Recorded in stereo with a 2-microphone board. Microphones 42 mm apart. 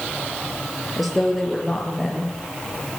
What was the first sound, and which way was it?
A woman speaking, centre (ahead or behind).